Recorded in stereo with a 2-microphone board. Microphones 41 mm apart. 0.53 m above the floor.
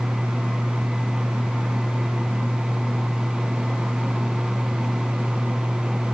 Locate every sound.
Only background noise.